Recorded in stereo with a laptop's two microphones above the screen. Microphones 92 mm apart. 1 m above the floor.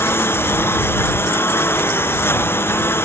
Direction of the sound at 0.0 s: 25° left (ahead or behind).